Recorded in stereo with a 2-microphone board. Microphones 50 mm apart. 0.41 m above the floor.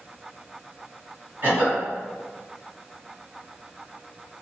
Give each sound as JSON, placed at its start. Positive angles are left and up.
{"t": 1.4, "sound": "a cough", "side_deg": -40, "distance_m": 1.9}